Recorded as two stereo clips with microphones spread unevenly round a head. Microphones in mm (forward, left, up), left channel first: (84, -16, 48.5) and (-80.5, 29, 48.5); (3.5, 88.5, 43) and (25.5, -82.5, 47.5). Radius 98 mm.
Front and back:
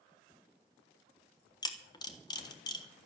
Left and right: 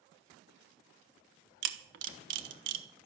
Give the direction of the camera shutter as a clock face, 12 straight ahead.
3 o'clock.